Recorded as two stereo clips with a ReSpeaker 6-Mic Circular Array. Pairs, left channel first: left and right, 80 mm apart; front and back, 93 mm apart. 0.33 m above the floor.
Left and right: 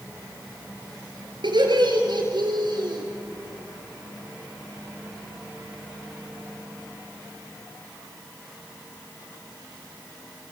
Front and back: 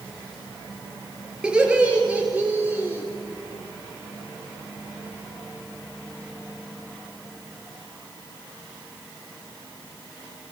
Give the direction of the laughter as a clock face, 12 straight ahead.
3 o'clock.